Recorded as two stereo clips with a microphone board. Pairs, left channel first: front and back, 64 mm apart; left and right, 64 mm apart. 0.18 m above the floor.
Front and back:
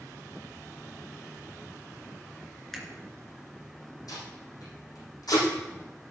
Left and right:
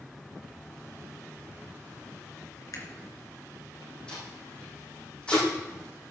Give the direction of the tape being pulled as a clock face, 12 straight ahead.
12 o'clock.